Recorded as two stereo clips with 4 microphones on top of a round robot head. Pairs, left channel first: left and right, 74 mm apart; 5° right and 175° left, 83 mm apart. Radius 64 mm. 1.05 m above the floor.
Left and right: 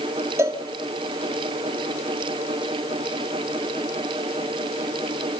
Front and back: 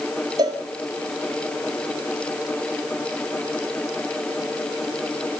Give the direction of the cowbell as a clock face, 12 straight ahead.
5 o'clock.